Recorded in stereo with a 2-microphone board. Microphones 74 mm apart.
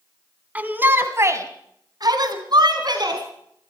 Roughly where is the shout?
Centre.